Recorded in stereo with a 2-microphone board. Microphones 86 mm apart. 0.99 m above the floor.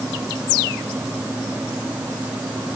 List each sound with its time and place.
Only background noise.